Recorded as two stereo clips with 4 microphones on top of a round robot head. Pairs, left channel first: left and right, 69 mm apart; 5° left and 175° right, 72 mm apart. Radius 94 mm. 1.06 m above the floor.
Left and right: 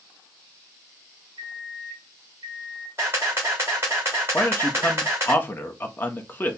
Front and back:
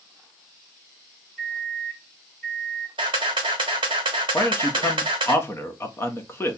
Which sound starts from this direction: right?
A microwave, at 1.4 s.